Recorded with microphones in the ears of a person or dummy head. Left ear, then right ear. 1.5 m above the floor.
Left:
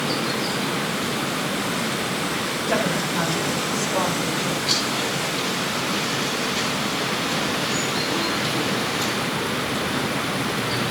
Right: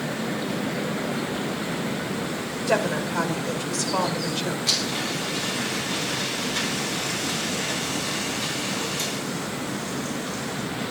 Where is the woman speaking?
30° right (ahead or behind), 5 m; by 4.6 s 60° right (ahead or behind), 5 m.